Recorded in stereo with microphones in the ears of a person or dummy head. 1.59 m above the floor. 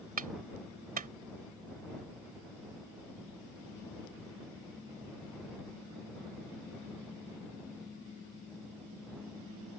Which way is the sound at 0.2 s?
45° right (ahead or behind).